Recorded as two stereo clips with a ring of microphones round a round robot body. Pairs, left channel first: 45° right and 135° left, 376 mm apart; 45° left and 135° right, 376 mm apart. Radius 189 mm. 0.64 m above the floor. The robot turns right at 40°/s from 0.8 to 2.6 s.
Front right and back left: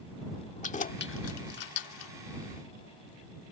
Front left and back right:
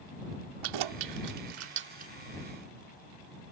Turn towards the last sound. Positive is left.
turn(degrees=-45)